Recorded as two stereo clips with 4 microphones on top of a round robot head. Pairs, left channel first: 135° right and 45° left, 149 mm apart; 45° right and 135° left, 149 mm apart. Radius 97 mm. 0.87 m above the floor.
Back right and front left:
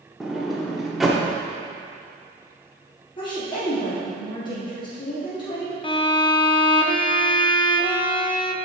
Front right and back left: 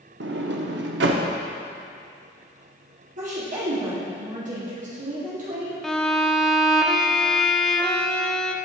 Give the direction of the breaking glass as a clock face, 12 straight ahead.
No breaking glass in this recording.